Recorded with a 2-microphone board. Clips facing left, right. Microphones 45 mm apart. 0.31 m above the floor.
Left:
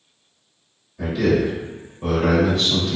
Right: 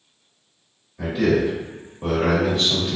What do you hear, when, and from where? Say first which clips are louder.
1.0 s a man speaking: even; 10° right (ahead or behind), 1.6 m